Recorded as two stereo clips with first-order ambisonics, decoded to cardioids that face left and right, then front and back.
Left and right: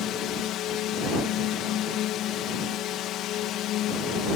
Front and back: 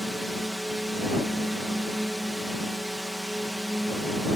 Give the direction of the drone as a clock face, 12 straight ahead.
9 o'clock.